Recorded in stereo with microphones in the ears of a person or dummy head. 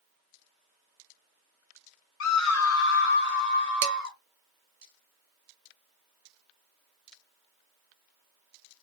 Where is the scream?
65° left (ahead or behind), 0.6 m; by 4.2 s 45° left (ahead or behind), 2.5 m.